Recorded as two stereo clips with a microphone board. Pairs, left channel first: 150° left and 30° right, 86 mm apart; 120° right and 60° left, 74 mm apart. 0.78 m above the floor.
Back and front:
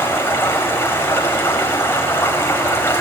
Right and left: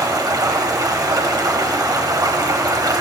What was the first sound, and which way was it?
Running water, 90° left.